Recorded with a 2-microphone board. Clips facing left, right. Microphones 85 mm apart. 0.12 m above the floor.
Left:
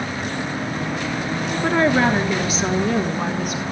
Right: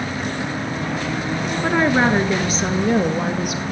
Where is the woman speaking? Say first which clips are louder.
Even; 10° right (ahead or behind), 1.4 m; by 3.6 s 65° right (ahead or behind), 2.5 m.